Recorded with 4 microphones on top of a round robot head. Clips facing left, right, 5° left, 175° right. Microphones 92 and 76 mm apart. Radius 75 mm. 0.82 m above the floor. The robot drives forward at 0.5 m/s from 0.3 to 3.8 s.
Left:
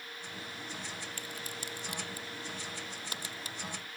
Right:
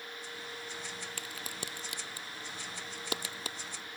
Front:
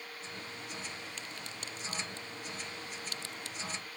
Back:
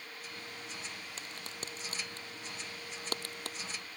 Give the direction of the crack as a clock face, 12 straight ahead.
4 o'clock.